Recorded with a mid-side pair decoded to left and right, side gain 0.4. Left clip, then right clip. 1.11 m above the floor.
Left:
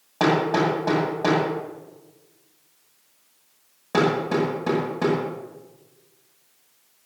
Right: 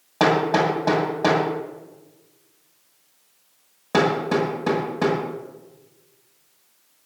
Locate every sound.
0.2 s hammering: 30° right, 7.5 m